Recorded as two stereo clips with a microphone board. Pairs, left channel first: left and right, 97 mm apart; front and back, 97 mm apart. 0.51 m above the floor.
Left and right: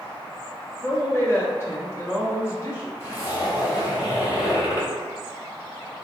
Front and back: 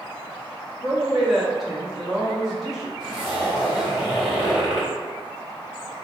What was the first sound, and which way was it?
A woman speaking, 95° left.